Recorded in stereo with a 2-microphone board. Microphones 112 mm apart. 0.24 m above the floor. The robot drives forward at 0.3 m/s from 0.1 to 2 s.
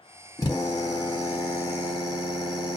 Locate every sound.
0.4 s a drill: 30° left (ahead or behind), 1.7 m; by 2.8 s 35° left (ahead or behind), 1.6 m